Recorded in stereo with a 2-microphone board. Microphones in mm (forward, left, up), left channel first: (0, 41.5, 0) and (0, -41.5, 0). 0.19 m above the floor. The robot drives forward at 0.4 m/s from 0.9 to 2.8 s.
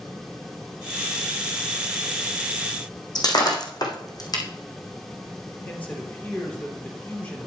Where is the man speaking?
20° left (ahead or behind), 3.5 m.